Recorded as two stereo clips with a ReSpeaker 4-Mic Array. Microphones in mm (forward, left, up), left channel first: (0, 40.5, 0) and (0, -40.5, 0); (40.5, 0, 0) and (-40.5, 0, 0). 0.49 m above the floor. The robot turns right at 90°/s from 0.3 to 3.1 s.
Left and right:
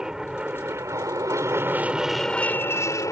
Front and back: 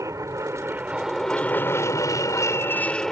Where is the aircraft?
170° right; by 3.1 s 85° left.